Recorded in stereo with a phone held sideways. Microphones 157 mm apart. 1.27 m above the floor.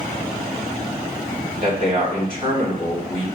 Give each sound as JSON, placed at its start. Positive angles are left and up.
{"t": 1.6, "sound": "a man speaking", "side_deg": -60, "distance_m": 1.9}